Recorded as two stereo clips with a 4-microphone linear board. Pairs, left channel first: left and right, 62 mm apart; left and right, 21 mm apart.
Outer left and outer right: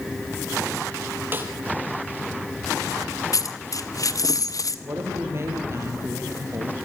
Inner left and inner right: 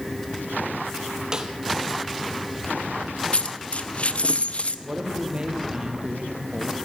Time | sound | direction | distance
1.3 | a snare drum | 30° right (ahead or behind) | 3 m
3.3 | a dropped coin | 65° left (ahead or behind) | 0.8 m
4.8 | a woman speaking | 45° right (ahead or behind) | 4.5 m